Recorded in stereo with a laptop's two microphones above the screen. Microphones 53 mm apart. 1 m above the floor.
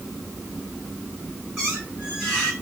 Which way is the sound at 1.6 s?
5° right (ahead or behind).